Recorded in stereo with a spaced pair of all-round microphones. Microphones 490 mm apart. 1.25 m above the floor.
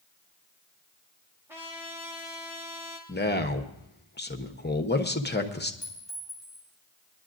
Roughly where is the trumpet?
Centre.